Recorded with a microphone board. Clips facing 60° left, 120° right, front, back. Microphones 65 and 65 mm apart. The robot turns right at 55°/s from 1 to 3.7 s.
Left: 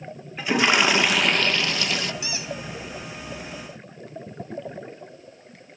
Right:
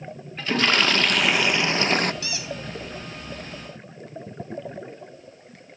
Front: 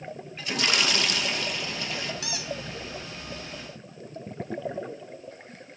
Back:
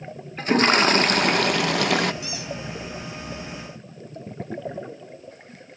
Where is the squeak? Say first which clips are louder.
Even, back 2 dB; 10° right, 3.5 m; by 2.5 s 5° left, 3.5 m.